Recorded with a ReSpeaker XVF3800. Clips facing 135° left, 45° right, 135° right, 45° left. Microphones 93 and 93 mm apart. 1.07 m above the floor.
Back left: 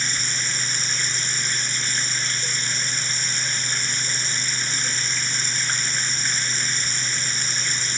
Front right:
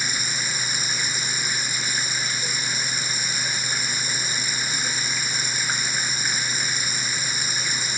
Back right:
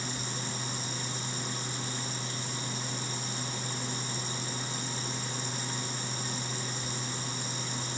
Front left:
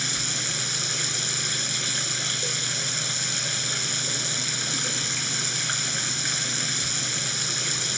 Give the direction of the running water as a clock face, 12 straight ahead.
11 o'clock.